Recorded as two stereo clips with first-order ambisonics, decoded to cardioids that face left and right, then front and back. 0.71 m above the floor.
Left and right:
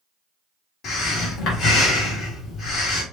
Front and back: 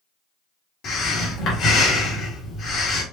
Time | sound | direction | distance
0.8 | breathing | 45° left | 1.6 m